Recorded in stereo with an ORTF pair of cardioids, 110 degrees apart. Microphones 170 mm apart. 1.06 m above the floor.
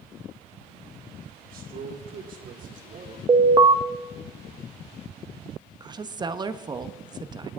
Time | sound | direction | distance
1.4 | a man speaking | 60° right | 3.5 m
3.3 | an alarm | 25° right | 0.7 m
5.8 | a woman speaking | 25° right | 0.9 m